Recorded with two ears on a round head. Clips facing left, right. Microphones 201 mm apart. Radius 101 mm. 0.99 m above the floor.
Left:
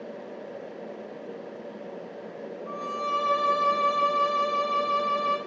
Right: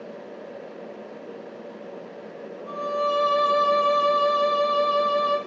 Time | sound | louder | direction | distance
2.7 | a violin | right 11 dB | 50° right (ahead or behind) | 1.9 m